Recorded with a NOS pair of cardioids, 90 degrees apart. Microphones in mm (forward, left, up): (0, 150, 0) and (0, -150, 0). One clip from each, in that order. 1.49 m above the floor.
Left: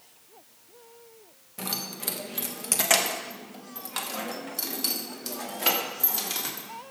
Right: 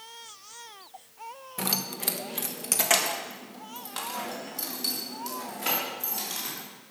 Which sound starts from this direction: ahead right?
Keys jangling, at 1.6 s.